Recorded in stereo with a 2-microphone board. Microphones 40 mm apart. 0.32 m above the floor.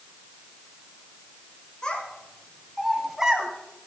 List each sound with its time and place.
1.8 s a child speaking: 25° left (ahead or behind), 3 m; by 3.5 s 25° right (ahead or behind), 1.7 m